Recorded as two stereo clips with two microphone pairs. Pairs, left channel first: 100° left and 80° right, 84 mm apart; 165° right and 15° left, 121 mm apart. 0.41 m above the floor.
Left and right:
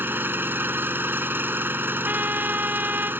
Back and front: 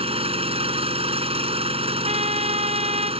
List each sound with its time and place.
0.0 s an engine running: 20° right
2.0 s a trumpet: 15° right